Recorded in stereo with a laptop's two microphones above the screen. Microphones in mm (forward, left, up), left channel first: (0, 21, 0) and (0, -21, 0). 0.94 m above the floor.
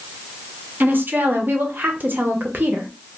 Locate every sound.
0.8 s a woman speaking: 50° right (ahead or behind), 0.6 m